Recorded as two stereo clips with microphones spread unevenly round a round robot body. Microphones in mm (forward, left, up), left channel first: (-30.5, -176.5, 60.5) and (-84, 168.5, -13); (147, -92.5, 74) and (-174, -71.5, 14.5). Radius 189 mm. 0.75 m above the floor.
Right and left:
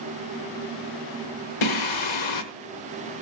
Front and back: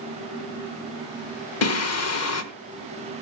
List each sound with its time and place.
1.6 s singing: 45° right, 1.3 m